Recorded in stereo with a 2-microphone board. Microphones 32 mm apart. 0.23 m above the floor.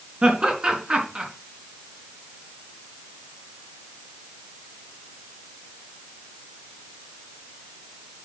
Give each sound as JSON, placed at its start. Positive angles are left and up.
{"t": 0.2, "sound": "laughter", "side_deg": -30, "distance_m": 3.5}